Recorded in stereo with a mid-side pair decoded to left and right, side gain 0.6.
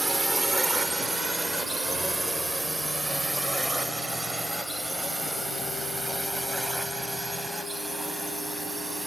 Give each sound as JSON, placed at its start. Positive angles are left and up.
{"t": 0.0, "sound": "a drone", "azimuth_deg": -15}